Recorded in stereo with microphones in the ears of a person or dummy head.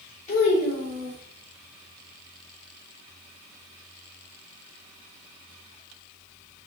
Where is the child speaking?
35° left (ahead or behind), 3 m.